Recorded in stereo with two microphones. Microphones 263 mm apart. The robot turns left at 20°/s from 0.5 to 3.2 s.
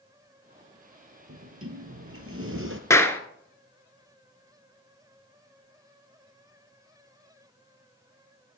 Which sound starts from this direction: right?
A sliding door, at 1.3 s.